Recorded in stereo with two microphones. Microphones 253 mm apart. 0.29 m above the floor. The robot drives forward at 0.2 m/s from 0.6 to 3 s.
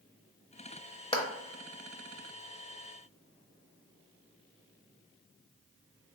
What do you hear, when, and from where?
1.1 s a clap: 20° left (ahead or behind), 0.7 m